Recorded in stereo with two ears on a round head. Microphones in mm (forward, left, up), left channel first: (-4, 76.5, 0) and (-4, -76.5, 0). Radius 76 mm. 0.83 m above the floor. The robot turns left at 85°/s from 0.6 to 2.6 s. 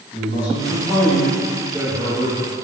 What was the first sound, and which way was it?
A man speaking, 25° left (ahead or behind).